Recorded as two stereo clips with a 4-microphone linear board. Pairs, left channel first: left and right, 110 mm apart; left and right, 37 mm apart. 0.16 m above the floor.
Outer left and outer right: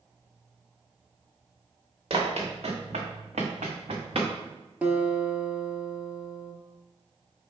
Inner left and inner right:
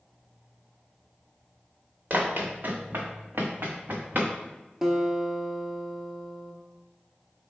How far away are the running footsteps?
About 1.2 m.